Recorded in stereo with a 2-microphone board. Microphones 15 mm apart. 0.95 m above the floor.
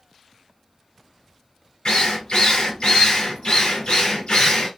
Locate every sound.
1.9 s a drill: 75° left (ahead or behind), 2.5 m